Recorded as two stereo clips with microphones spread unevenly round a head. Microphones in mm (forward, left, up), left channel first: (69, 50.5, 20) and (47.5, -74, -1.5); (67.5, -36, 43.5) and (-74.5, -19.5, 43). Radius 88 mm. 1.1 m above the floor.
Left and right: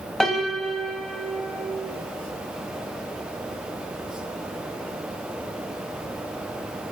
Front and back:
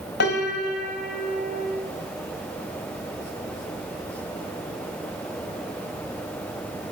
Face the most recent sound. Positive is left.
turn(degrees=-10)